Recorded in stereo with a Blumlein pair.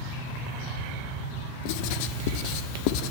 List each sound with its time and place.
1.6 s writing: 45° left, 1.7 m